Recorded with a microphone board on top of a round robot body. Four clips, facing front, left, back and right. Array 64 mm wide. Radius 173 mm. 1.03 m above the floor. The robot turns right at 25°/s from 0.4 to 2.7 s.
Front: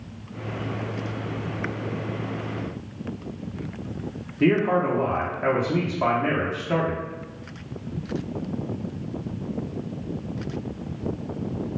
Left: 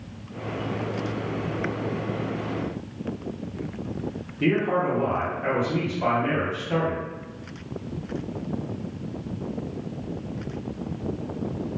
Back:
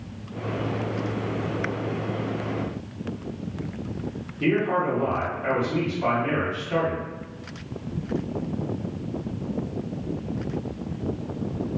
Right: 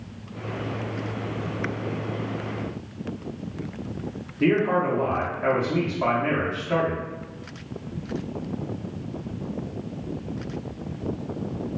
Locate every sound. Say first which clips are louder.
4.4 s a man speaking: right 2 dB, front 2 dB; 20° right, 0.6 m